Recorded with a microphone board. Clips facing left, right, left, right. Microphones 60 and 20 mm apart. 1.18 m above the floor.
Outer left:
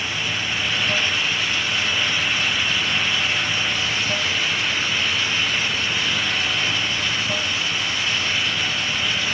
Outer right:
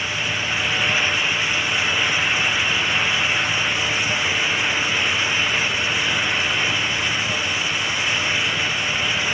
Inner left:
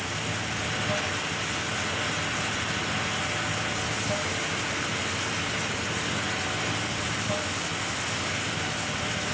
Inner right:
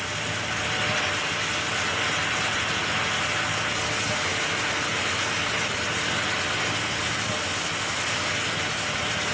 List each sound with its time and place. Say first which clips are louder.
0.0 s running water: outer right 1 dB, inner right 2 dB; 15° left (ahead or behind)